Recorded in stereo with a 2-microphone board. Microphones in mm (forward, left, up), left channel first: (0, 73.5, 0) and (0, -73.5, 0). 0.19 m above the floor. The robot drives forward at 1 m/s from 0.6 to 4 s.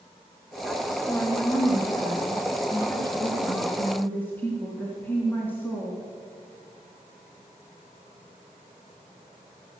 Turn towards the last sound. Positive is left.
turn(degrees=10)  # may be behind; listen again after turning